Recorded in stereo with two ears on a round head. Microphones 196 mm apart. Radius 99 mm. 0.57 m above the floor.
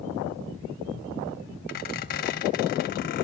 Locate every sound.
1.7 s a squeak: 40° left (ahead or behind), 0.8 m